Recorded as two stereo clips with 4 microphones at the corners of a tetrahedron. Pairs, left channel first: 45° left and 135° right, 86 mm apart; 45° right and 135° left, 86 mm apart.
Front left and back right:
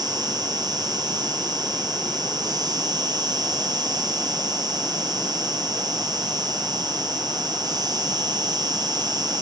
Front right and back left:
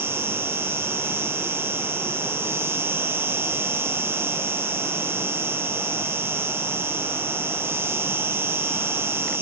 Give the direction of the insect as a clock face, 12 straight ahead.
5 o'clock.